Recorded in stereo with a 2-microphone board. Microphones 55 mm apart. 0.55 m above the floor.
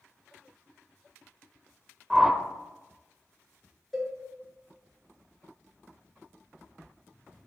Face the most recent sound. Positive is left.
turn(degrees=0)  # may be behind; listen again after turning